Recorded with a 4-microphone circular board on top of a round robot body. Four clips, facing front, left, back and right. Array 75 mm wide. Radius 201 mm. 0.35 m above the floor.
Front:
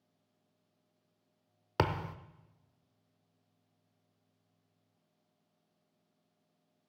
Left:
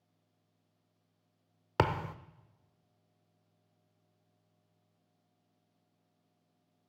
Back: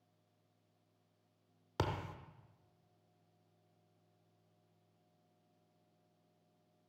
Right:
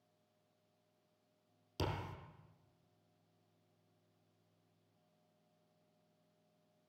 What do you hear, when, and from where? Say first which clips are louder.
1.8 s a thud: left 12 dB, front 7 dB; 65° left, 0.7 m